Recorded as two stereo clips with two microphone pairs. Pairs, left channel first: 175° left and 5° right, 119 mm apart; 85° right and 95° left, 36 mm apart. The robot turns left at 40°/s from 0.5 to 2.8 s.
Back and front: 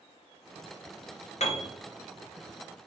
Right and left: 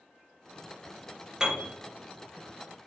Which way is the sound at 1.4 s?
165° left.